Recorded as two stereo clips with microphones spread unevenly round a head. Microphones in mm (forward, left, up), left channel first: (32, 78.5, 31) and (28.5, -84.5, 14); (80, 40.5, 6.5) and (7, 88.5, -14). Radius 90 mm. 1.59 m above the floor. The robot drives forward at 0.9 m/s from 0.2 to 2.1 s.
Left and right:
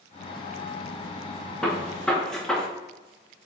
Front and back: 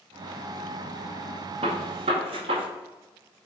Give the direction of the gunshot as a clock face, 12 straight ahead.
6 o'clock.